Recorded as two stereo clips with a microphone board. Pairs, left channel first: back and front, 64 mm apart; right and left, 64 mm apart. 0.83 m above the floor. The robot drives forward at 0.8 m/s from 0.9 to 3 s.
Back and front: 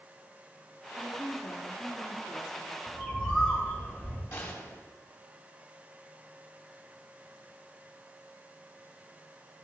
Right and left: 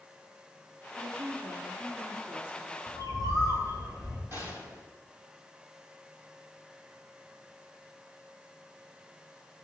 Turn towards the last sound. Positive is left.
turn(degrees=140)